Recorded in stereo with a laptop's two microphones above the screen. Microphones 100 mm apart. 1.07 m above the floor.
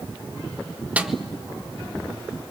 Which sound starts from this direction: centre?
A snare drum, at 1.0 s.